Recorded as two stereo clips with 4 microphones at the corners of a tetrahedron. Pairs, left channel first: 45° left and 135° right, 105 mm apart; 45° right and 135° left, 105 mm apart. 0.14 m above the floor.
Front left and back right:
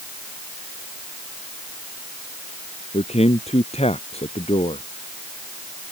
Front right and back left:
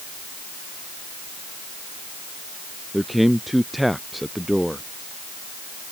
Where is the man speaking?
45° left.